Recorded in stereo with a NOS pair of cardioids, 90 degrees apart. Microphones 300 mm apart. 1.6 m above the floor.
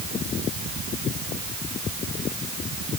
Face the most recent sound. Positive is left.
No sound to turn to.